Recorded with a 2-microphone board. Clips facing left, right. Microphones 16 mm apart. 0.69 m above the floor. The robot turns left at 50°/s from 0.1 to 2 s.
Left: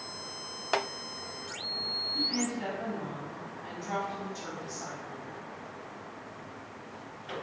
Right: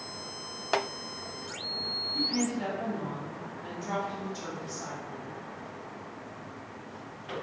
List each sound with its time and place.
2.1 s a woman speaking: 45° right (ahead or behind), 1.5 m